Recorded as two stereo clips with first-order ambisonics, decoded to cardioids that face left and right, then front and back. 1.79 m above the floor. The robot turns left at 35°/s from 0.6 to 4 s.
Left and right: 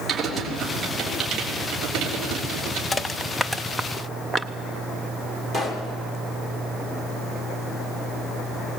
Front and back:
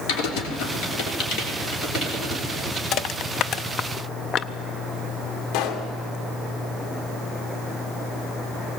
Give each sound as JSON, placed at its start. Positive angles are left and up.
{"t": 0.1, "sound": "typing on a keyboard", "azimuth_deg": -10, "distance_m": 3.5}
{"t": 2.9, "sound": "crushing", "azimuth_deg": 15, "distance_m": 0.5}
{"t": 5.5, "sound": "a pop", "azimuth_deg": -10, "distance_m": 2.5}